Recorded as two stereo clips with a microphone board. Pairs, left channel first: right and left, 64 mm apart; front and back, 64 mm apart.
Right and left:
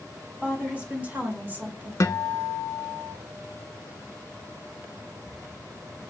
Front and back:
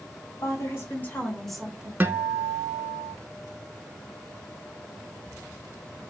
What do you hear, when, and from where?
0.4 s a woman speaking: 20° left, 1.4 m; by 1.9 s 125° left, 1.0 m
2.0 s a guitar: 120° right, 0.5 m